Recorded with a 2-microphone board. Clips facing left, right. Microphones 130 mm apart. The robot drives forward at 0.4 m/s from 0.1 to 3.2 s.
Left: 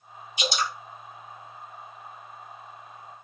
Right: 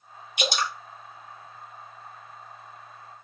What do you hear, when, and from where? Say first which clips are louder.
0.4 s dripping: right 1 dB; 60° right (ahead or behind), 0.9 m; by 0.7 s 55° right (ahead or behind), 1.0 m